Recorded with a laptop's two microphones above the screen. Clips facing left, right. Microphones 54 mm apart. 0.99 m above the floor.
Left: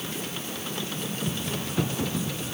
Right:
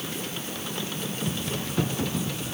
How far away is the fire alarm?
I don't hear a fire alarm.